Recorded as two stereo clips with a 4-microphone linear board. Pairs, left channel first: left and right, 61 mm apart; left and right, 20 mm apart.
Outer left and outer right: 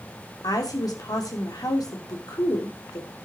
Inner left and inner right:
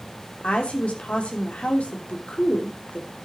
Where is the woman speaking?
85° left, 3 m.